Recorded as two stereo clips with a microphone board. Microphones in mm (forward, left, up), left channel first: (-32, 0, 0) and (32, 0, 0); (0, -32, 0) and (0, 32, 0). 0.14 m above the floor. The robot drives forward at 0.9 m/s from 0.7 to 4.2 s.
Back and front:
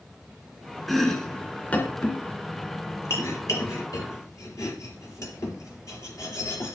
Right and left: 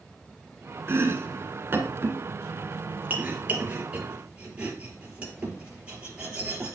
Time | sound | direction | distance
0.9 | chopping | 95° left | 1.9 m